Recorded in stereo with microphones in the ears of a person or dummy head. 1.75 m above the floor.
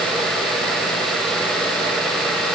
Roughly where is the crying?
I don't hear crying.